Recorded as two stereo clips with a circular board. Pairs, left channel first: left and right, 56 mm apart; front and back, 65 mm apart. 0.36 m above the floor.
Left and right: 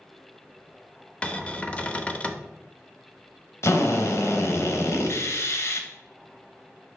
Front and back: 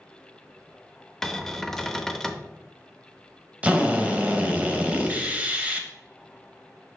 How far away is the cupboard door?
About 0.5 m.